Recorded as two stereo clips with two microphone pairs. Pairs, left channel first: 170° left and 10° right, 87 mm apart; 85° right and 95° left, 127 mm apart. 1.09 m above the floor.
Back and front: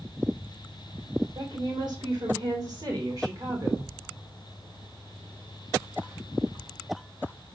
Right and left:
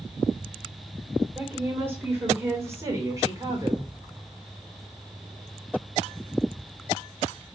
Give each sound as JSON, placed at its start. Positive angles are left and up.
{"t": 1.4, "sound": "a woman speaking", "azimuth_deg": 20, "distance_m": 3.5}